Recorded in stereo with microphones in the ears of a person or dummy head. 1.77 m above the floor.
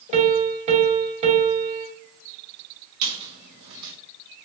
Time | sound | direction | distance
0.1 | a piano | 35° right (ahead or behind) | 0.8 m
3.0 | a squeak | 55° right (ahead or behind) | 1.5 m